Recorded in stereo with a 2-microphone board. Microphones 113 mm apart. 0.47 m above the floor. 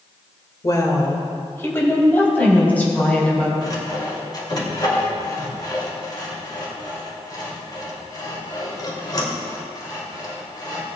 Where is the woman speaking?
35° left (ahead or behind), 1.6 m; by 3.5 s 10° left (ahead or behind), 4 m.